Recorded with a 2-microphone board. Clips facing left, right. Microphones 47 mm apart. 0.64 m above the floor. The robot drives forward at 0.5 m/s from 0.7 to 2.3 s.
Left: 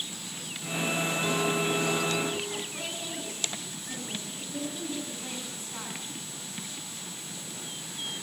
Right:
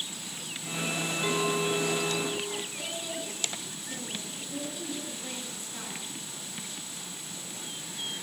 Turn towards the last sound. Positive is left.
turn(degrees=30)  # may be behind; listen again after turning